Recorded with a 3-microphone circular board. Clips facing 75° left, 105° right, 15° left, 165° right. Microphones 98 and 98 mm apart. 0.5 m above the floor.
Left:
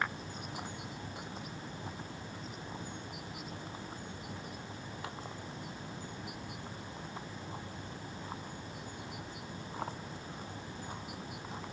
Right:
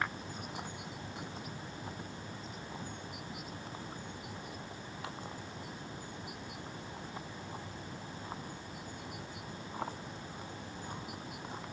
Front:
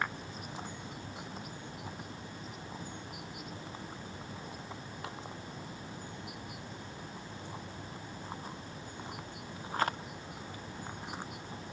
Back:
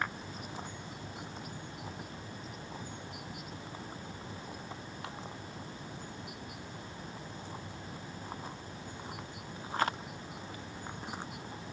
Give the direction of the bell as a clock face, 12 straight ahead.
I don't hear a bell.